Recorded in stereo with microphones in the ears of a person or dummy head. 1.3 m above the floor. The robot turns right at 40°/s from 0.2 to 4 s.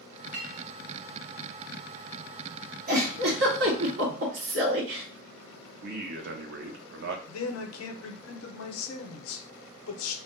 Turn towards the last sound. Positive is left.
turn(degrees=80)